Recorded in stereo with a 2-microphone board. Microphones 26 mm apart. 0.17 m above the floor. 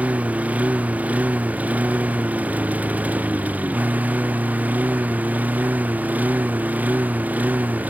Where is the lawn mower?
65° right (ahead or behind); by 7.9 s 85° right.